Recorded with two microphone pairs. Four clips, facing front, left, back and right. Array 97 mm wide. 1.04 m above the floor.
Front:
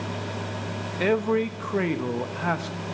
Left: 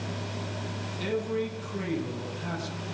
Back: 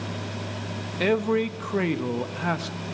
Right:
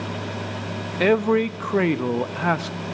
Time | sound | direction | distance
1.0 | a man speaking | 80° right | 0.7 m